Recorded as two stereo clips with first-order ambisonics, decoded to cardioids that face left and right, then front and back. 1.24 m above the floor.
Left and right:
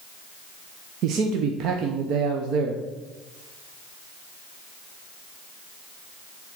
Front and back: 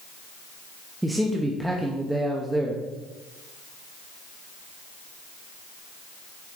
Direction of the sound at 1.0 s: 95° right.